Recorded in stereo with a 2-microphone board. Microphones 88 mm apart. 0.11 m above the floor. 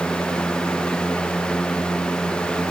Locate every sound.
Only background noise.